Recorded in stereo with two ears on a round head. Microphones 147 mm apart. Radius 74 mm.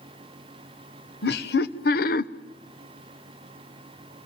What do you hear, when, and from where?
1.2 s laughter: 65° left (ahead or behind), 1.3 m; by 2.3 s 50° left (ahead or behind), 0.8 m